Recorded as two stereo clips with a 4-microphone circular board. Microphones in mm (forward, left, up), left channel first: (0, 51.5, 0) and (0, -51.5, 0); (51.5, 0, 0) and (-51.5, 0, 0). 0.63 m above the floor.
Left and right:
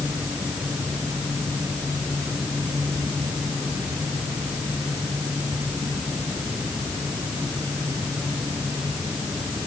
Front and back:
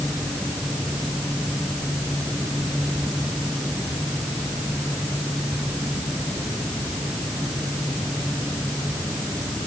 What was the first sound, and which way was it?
Only background noise.